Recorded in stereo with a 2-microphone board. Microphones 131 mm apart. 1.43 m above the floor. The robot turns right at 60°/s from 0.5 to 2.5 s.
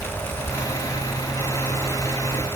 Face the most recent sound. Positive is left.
No sound to turn to.